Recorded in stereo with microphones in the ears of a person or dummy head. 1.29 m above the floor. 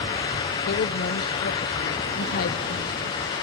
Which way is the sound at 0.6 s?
50° left (ahead or behind).